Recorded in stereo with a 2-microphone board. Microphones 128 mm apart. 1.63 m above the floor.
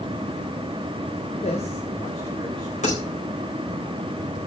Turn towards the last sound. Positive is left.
turn(degrees=65)  # may be behind; listen again after turning